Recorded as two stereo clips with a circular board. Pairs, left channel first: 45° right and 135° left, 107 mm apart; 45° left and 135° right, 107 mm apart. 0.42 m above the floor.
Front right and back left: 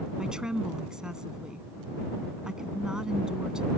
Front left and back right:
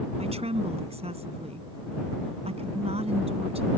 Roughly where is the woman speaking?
Behind right.